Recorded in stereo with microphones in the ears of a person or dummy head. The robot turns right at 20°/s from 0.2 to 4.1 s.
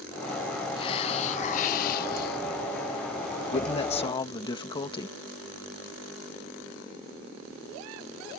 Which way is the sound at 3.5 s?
35° left (ahead or behind).